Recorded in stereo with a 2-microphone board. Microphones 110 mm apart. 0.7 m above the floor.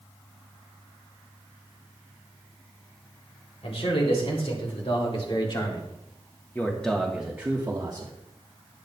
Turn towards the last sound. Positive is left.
turn(degrees=-40)  # may be behind; listen again after turning